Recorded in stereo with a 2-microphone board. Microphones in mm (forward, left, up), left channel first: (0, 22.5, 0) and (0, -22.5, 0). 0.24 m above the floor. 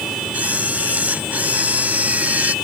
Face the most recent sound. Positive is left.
turn(degrees=-35)  # may be behind; listen again after turning